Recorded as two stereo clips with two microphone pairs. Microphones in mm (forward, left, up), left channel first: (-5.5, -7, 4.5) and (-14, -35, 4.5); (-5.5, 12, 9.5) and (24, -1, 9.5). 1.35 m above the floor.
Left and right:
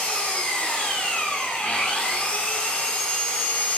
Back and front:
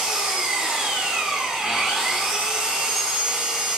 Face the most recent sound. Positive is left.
turn(degrees=50)